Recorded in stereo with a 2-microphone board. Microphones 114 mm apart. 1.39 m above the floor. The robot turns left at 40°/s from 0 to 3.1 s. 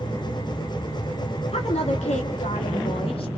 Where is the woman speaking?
120° left, 3 m; by 3.3 s 55° left, 3 m.